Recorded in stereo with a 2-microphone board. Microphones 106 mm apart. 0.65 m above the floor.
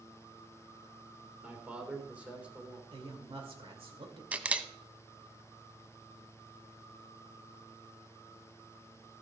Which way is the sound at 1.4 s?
10° right (ahead or behind).